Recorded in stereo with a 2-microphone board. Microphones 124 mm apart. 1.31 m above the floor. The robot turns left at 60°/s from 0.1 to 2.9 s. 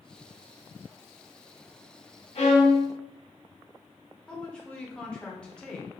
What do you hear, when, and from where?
2.4 s a violin: 90° left, 1.1 m; by 2.9 s 60° left, 1.1 m
4.3 s a woman speaking: 10° left (ahead or behind), 0.8 m